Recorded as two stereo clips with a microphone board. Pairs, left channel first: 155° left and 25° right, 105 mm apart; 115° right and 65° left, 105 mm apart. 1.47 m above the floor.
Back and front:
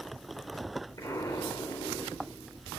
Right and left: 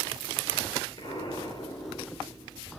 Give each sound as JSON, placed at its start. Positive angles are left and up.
{"t": 1.0, "sound": "an explosion", "azimuth_deg": -150, "distance_m": 2.5}